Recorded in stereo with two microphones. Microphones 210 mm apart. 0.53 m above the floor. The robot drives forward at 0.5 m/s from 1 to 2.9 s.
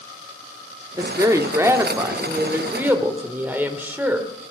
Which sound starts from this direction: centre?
A woman speaking, at 1.0 s.